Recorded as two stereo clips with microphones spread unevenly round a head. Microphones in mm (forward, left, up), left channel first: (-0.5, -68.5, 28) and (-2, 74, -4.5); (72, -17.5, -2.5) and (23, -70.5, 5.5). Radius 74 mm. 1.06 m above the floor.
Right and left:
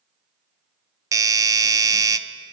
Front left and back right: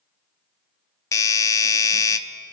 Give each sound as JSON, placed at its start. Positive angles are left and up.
{"t": 1.1, "sound": "a doorbell", "azimuth_deg": 45, "distance_m": 0.6}